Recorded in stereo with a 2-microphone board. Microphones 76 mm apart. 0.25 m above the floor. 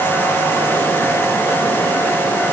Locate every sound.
Only background noise.